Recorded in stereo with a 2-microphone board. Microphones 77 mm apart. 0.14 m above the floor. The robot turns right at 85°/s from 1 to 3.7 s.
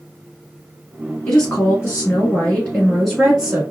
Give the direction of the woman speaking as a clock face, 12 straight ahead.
11 o'clock.